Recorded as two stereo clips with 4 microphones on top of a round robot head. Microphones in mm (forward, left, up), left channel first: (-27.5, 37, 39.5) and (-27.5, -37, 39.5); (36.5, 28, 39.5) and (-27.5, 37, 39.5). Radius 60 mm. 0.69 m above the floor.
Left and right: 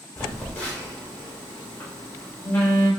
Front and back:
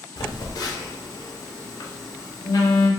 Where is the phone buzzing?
20° left, 0.6 m.